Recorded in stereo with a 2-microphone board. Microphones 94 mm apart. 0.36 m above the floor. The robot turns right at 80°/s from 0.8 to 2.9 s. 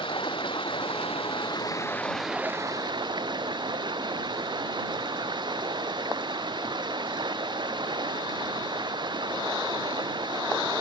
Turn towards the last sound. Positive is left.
turn(degrees=-125)